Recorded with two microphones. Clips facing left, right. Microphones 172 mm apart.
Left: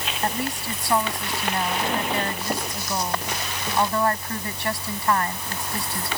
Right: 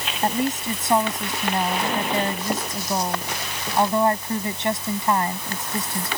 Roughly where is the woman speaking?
Right.